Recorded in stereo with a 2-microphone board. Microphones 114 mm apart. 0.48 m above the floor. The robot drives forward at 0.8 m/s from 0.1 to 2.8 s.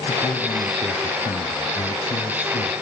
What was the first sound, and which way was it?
A man speaking, 45° left (ahead or behind).